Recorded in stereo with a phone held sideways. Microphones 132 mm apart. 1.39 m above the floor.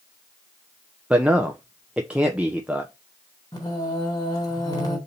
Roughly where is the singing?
Left.